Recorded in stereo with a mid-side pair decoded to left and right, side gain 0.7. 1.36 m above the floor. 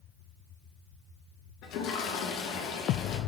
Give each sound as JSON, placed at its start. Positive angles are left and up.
{"t": 1.6, "sound": "a toilet flushing", "azimuth_deg": 60, "distance_m": 1.6}